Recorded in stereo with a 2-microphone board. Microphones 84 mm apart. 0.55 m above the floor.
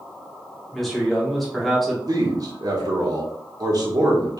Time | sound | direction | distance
0.7 | a man speaking | centre (ahead or behind) | 1.2 m
2.1 | a man speaking | 50° right (ahead or behind) | 1.2 m